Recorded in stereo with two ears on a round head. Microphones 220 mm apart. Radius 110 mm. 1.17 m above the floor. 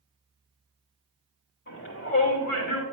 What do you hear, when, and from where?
1.7 s a shout: 55° left (ahead or behind), 3.5 m; by 2.8 s 75° left (ahead or behind), 3 m